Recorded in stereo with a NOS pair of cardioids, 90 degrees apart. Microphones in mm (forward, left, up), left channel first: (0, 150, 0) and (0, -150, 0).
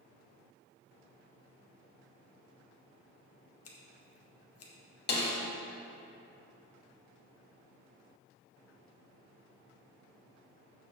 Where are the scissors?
50° left, 1.5 m.